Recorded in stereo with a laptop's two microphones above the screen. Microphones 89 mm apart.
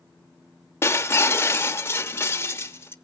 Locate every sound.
0.8 s breaking glass: 25° left (ahead or behind), 0.7 m